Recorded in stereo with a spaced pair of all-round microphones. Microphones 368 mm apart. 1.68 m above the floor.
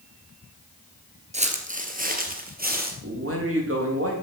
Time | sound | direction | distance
1.3 | footsteps | 20° right (ahead or behind) | 1.7 m
3.0 | a man speaking | 35° right (ahead or behind) | 3.5 m